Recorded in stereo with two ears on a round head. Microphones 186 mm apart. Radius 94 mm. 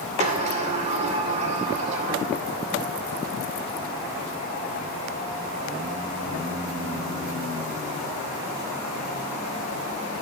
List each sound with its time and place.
0.2 s a sliding door: 35° right (ahead or behind), 2.5 m